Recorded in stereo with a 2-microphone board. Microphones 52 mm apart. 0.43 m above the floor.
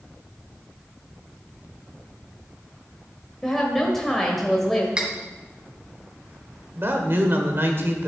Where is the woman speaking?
5° left (ahead or behind), 1.5 m.